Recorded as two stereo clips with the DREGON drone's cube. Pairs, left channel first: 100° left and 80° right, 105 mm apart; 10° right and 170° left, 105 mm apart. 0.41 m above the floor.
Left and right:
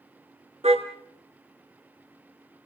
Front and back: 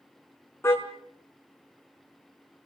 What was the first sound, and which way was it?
A car horn, 80° right.